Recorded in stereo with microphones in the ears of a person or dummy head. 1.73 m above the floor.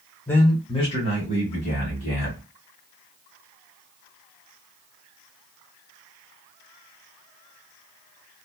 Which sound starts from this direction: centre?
A man speaking, at 0.3 s.